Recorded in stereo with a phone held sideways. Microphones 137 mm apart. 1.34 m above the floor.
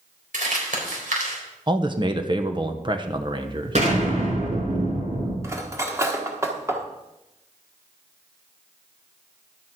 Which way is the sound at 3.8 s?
60° right (ahead or behind).